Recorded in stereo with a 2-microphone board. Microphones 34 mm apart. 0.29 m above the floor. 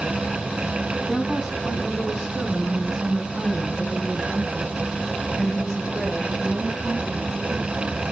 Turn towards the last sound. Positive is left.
turn(degrees=-15)  # may be behind; listen again after turning